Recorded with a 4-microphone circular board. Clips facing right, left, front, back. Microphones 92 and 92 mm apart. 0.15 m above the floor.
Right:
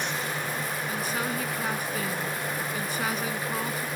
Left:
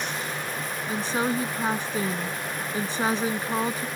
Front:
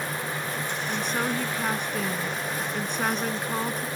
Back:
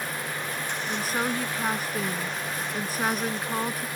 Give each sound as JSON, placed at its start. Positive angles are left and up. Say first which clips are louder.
{"t": 0.9, "sound": "a woman speaking", "louder": "left 7 dB, even", "azimuth_deg": 100}